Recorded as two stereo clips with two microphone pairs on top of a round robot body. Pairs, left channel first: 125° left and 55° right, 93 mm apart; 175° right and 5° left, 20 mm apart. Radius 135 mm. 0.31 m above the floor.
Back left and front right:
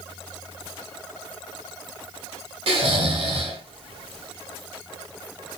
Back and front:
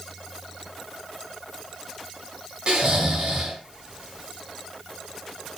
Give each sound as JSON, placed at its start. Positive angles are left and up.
{"t": 2.7, "sound": "snoring", "azimuth_deg": -40, "distance_m": 0.9}